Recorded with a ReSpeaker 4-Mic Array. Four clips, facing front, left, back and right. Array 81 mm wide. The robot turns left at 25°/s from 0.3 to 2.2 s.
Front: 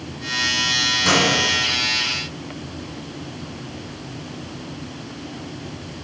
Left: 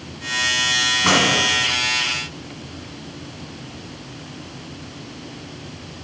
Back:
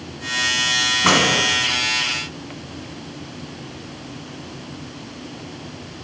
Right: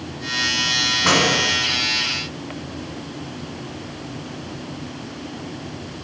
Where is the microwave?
Straight behind, 1.9 m; by 1.4 s 170° left, 1.9 m.